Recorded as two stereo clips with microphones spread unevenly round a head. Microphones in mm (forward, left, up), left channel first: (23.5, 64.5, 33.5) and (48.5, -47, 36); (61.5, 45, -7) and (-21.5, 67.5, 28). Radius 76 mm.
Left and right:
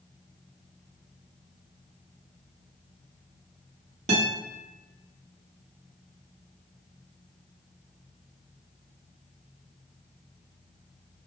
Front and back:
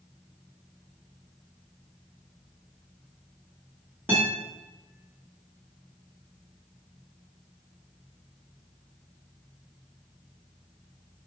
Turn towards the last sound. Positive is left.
turn(degrees=-115)